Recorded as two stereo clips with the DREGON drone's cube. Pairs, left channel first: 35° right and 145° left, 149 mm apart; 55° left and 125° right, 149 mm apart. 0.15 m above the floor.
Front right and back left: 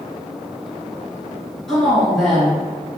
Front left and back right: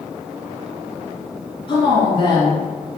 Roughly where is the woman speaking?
Ahead left.